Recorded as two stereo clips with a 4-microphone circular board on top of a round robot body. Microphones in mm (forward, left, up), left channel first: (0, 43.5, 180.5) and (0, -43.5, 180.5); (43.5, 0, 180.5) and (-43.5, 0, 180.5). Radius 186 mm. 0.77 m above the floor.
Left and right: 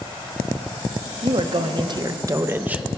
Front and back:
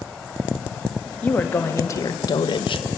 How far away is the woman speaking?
About 1.3 m.